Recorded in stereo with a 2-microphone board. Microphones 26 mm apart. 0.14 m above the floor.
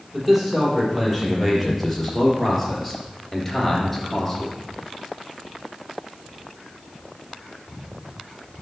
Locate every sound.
0.1 s a man speaking: 5° right (ahead or behind), 4 m; by 4.6 s 10° left (ahead or behind), 2 m